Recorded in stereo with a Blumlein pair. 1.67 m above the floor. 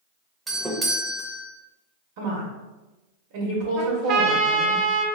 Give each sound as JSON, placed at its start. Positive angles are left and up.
{"t": 0.5, "sound": "a doorbell", "azimuth_deg": -5, "distance_m": 0.9}
{"t": 2.2, "sound": "a woman speaking", "azimuth_deg": -50, "distance_m": 1.2}
{"t": 3.8, "sound": "a trumpet", "azimuth_deg": -35, "distance_m": 0.7}